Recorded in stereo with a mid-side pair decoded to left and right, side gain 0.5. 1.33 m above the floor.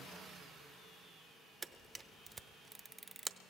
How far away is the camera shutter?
About 0.7 m.